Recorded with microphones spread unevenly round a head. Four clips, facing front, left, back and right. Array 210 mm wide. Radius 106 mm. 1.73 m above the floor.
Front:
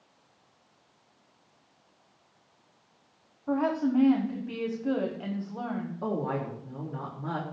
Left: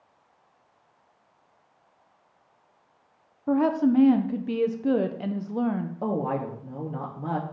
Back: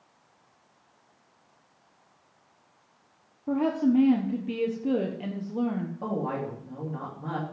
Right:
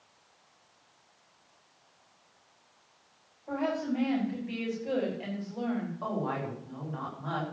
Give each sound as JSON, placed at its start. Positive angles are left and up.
{"t": 3.5, "sound": "a woman speaking", "azimuth_deg": 120, "distance_m": 1.4}
{"t": 6.0, "sound": "a woman speaking", "azimuth_deg": 100, "distance_m": 3.0}